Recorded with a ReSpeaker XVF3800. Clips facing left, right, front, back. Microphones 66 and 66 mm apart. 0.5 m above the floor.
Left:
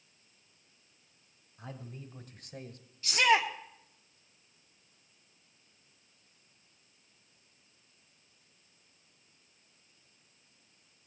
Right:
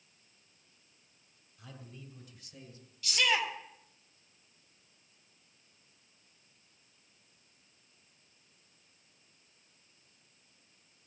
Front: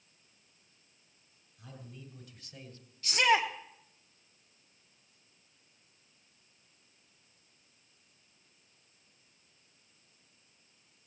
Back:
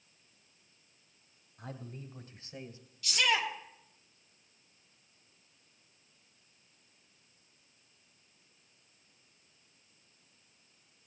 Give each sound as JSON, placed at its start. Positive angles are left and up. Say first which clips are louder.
{"t": 1.6, "sound": "a man speaking", "louder": "left 5 dB, back 5 dB", "azimuth_deg": 145, "distance_m": 2.5}
{"t": 3.0, "sound": "a shout", "louder": "left 5 dB, front 4 dB", "azimuth_deg": 40, "distance_m": 1.8}